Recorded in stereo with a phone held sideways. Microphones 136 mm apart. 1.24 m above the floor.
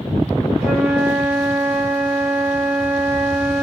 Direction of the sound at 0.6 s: 5° right (ahead or behind).